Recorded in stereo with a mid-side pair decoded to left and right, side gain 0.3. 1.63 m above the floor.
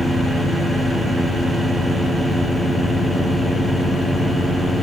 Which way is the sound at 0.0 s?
60° left.